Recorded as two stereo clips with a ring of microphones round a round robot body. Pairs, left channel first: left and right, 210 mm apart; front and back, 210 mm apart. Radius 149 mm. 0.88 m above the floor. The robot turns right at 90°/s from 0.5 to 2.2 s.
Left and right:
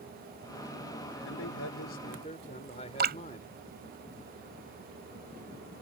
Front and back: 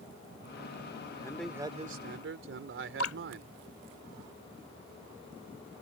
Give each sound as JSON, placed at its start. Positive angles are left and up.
{"t": 1.2, "sound": "a man speaking", "azimuth_deg": 65}
{"t": 3.0, "sound": "dripping", "azimuth_deg": -50}